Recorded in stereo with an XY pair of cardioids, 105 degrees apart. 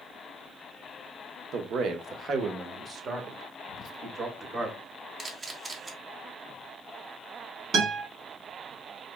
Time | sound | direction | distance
1.5 | a man speaking | 70° right | 0.9 m
3.7 | whispering | 65° left | 0.7 m
5.2 | a camera shutter | 35° right | 1.2 m
7.7 | a guitar | 65° right | 2.5 m